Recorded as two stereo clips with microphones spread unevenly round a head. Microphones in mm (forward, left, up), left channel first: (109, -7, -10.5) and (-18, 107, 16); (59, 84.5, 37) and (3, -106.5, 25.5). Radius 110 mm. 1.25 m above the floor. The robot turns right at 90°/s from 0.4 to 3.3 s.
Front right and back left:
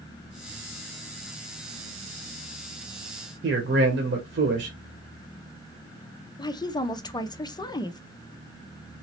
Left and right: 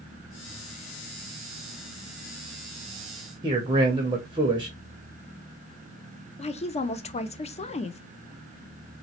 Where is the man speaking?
175° right, 0.6 m.